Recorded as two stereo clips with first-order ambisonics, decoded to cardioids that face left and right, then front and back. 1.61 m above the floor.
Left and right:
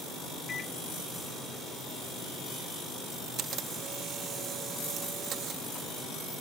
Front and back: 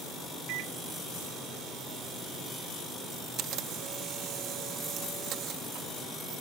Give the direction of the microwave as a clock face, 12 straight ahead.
7 o'clock.